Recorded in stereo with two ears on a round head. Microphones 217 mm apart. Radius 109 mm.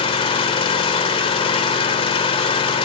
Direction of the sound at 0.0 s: 20° left (ahead or behind).